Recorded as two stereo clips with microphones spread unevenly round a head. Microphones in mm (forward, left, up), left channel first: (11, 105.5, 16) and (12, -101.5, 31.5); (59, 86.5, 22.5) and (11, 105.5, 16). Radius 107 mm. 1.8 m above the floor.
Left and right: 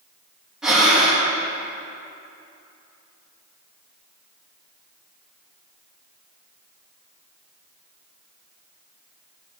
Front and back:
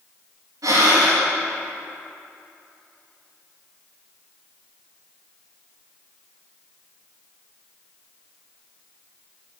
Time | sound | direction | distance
0.6 | breathing | 175° right | 2 m